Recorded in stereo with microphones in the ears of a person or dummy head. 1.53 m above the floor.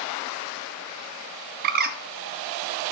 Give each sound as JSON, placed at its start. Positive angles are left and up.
{"t": 1.6, "sound": "a bird", "side_deg": -50, "distance_m": 0.5}